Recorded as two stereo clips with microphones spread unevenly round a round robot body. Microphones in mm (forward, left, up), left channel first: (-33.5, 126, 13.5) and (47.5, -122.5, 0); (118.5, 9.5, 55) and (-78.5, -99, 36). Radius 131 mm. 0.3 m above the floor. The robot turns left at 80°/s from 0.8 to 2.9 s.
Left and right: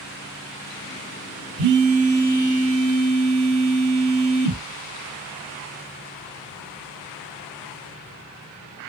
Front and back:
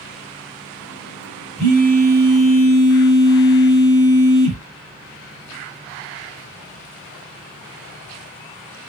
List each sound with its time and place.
1.6 s a phone buzzing: 65° right, 1.7 m; by 4.6 s 170° right, 1.7 m